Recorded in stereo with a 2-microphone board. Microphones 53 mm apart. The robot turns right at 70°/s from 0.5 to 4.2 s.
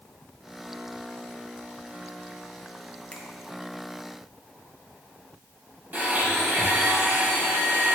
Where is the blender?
35° right (ahead or behind), 3 m.